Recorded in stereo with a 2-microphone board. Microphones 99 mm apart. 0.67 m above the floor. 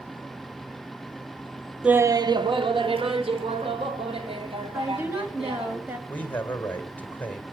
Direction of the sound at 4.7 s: 20° right (ahead or behind).